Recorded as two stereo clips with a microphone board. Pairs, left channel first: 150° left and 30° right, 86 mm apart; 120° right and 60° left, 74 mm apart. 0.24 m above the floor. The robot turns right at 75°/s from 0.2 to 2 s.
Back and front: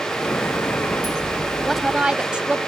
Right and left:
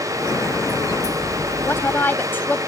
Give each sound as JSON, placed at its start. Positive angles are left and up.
{"t": 1.6, "sound": "a woman speaking", "azimuth_deg": -125}